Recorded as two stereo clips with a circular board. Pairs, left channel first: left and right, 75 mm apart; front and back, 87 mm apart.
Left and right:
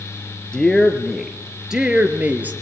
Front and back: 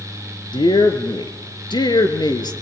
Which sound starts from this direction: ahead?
A woman speaking, at 0.5 s.